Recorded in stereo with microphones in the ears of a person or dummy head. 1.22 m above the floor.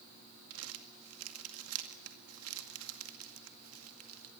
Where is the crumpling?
85° right, 2.0 m.